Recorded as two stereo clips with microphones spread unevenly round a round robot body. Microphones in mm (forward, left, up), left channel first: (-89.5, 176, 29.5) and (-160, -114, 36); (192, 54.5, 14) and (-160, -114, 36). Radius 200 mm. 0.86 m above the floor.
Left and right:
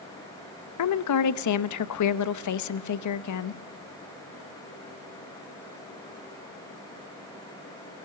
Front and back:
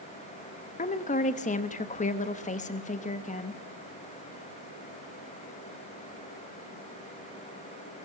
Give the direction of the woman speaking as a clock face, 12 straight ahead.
9 o'clock.